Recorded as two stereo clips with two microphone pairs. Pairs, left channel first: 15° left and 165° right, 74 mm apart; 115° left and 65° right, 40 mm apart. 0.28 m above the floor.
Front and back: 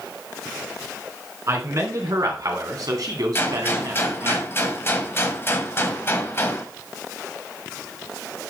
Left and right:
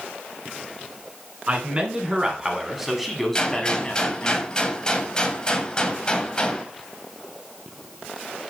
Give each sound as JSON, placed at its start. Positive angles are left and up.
{"t": 1.5, "sound": "a man speaking", "azimuth_deg": -120, "distance_m": 2.5}
{"t": 3.4, "sound": "a gunshot", "azimuth_deg": 55, "distance_m": 1.1}